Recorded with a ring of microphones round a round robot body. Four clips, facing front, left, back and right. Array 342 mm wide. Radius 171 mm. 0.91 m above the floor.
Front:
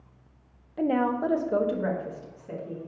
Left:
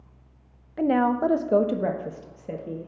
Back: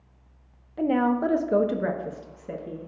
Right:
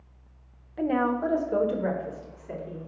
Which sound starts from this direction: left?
A woman speaking, at 0.8 s.